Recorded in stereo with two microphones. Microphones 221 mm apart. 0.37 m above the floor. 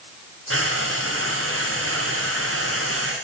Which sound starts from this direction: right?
Frying, at 0.5 s.